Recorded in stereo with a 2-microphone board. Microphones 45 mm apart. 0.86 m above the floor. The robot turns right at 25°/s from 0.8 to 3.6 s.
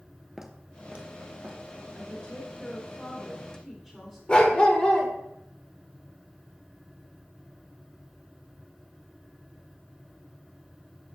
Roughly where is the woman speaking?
Behind left.